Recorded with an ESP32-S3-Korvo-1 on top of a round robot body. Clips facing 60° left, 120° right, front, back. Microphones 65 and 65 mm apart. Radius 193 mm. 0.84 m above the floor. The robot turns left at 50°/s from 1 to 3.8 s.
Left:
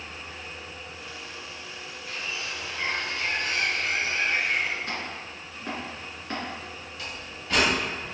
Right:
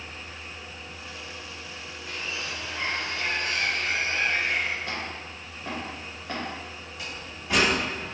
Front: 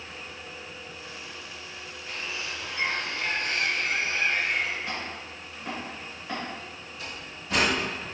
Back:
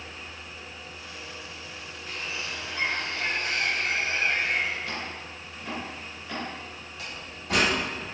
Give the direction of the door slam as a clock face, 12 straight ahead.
6 o'clock.